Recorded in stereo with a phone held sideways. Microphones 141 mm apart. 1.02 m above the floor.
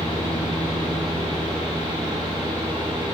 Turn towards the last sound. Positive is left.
turn(degrees=-35)  # may be behind; listen again after turning